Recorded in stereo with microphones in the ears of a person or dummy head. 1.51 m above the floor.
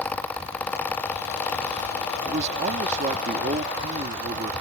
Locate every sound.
2.2 s a man speaking: 40° right (ahead or behind)